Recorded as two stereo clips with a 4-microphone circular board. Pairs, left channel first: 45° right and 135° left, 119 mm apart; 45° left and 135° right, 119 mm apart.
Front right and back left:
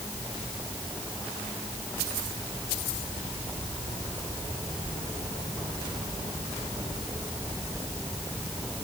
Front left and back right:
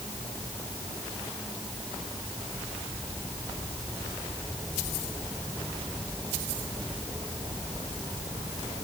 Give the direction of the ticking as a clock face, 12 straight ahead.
I don't hear ticking.